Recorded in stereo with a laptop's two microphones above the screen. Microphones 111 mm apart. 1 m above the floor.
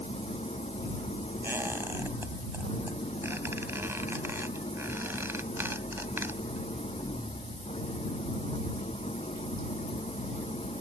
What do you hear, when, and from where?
0.0 s an engine running: 70° left (ahead or behind)
1.4 s a squeak: 20° right (ahead or behind)